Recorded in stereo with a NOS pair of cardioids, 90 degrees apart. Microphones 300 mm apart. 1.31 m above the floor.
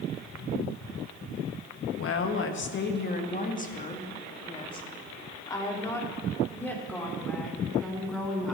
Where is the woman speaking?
50° left, 1.5 m; by 8.5 s straight ahead, 4 m.